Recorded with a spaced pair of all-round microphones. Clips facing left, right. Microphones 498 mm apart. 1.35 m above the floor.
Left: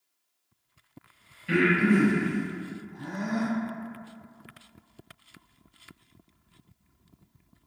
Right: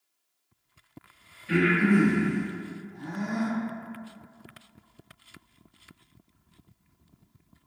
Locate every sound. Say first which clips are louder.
1.5 s breathing: even; 75° left (ahead or behind), 0.8 m